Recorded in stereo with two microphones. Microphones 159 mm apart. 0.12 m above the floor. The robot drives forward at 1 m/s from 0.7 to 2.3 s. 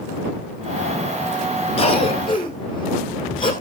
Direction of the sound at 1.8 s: 35° left (ahead or behind).